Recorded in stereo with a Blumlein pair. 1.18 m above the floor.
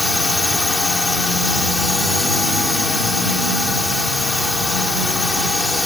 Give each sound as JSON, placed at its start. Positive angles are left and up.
{"t": 0.0, "sound": "a drone", "azimuth_deg": 10}